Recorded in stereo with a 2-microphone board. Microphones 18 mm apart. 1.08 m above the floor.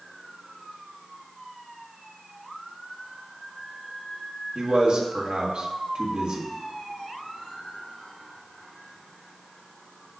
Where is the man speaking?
70° right (ahead or behind), 1.7 m.